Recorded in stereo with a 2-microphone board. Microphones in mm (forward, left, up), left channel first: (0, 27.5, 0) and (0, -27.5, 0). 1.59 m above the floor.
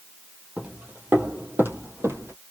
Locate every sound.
0.6 s footsteps: 25° right (ahead or behind), 2 m; by 2.3 s 55° right (ahead or behind), 2.5 m